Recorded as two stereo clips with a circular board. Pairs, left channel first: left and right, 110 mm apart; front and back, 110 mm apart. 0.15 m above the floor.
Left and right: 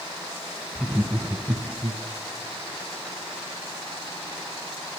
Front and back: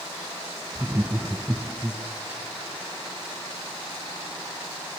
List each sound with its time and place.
0.8 s laughter: 155° right, 1.3 m; by 2.0 s 105° right, 1.6 m